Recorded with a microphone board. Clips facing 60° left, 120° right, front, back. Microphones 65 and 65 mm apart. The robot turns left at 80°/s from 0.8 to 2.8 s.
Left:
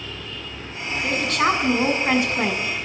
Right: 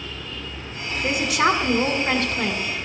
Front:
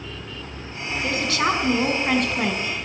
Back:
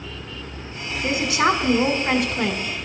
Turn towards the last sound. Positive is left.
turn(degrees=55)